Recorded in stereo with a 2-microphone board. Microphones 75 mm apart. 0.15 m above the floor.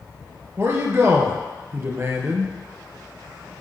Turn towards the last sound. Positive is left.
turn(degrees=-35)  # may be behind; listen again after turning